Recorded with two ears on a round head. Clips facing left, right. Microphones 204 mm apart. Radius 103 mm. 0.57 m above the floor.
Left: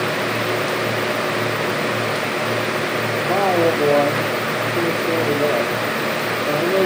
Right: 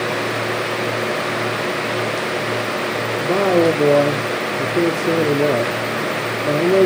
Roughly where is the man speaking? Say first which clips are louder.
Right 3 dB; right.